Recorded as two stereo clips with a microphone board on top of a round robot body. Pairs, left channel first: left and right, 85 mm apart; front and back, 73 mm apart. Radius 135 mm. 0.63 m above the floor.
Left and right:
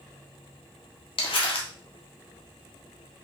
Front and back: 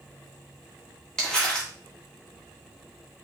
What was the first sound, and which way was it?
Crumpling, 80° left.